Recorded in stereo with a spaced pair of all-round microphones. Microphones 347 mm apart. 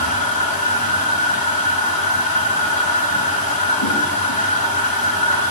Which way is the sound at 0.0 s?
80° left.